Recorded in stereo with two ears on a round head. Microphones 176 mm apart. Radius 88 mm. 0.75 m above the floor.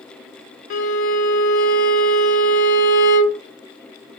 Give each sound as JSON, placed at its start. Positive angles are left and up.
{"t": 0.7, "sound": "a violin", "side_deg": 40, "distance_m": 0.5}